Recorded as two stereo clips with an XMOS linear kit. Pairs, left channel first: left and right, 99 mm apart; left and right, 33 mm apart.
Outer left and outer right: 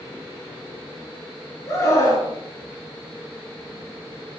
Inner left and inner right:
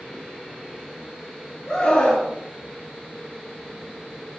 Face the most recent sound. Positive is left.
turn(degrees=30)  # may be behind; listen again after turning